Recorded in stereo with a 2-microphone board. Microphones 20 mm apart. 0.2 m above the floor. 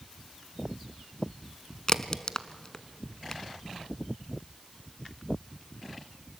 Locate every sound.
1.9 s a crack: 30° left (ahead or behind), 0.8 m